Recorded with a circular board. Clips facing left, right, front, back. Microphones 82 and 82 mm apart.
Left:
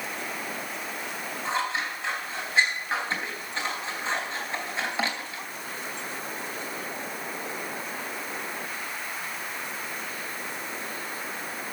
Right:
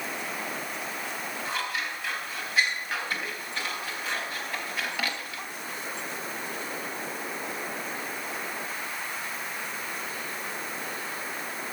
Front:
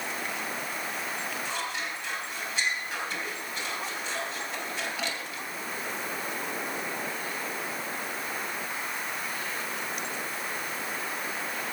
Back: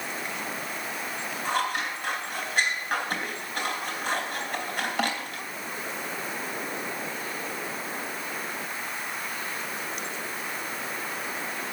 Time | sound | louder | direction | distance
1.4 | scissors | left 5 dB, back 6 dB | 150° left | 3.5 m